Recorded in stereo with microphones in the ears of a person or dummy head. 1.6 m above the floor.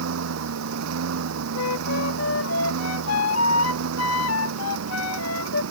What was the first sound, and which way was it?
A lawn mower, 75° right (ahead or behind).